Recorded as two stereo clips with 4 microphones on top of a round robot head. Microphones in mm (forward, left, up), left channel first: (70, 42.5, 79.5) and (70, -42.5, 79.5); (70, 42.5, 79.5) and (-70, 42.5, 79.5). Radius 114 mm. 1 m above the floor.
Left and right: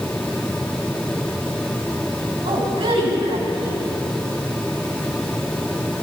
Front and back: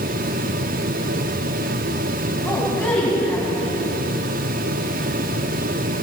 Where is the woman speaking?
80° right, 8.5 m.